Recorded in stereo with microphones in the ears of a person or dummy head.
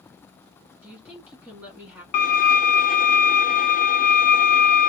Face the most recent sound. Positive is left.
turn(degrees=35)  # may be behind; listen again after turning